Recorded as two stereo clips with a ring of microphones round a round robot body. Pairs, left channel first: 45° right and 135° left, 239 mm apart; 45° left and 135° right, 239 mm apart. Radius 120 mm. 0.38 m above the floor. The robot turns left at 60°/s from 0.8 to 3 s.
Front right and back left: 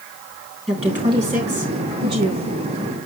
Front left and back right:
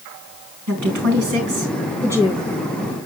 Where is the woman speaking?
135° right, 3.5 m; by 2.5 s 125° left, 3.5 m.